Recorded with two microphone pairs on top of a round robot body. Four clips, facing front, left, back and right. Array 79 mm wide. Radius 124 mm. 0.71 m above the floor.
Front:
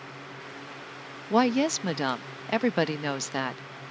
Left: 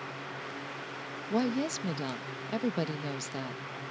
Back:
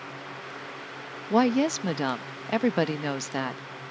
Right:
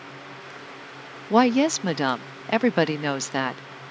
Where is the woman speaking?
80° right.